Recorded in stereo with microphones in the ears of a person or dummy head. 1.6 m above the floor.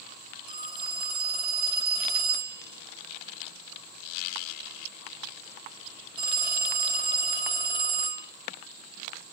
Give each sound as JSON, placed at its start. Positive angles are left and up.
{"t": 0.5, "sound": "a phone ringing", "side_deg": -25, "distance_m": 1.8}